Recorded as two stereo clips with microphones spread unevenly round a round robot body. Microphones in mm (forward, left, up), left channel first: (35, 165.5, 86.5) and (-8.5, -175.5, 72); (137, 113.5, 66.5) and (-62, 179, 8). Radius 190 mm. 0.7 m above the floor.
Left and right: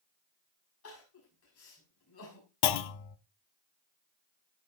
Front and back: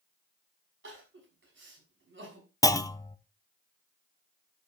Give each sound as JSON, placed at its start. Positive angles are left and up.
{"t": 0.8, "sound": "crying", "azimuth_deg": 135, "distance_m": 6.0}
{"t": 2.6, "sound": "a clunk", "azimuth_deg": 60, "distance_m": 0.8}